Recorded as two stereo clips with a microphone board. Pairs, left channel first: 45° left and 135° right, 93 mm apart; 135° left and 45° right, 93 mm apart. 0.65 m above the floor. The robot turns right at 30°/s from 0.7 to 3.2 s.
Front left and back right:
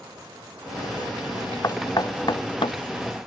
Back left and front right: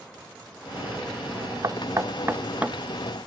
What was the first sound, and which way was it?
Knocking, straight ahead.